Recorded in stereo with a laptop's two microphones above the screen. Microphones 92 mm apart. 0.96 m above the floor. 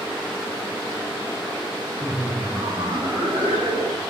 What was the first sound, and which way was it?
Laughter, 35° right (ahead or behind).